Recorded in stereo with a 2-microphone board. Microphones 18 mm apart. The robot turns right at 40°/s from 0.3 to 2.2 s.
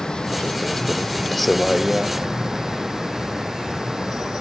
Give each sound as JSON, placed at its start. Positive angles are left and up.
{"t": 0.0, "sound": "a vehicle", "side_deg": 55}